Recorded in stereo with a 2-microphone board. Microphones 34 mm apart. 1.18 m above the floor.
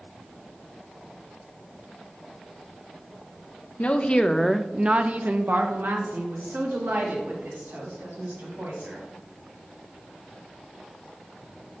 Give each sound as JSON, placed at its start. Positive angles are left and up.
{"t": 3.8, "sound": "a woman speaking", "side_deg": 45, "distance_m": 0.8}